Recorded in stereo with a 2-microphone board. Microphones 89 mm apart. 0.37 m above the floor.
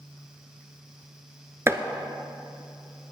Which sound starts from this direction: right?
Chopping, at 1.7 s.